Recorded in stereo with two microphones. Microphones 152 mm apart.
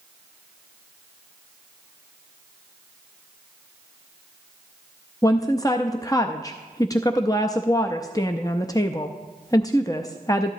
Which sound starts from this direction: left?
A woman speaking, at 5.2 s.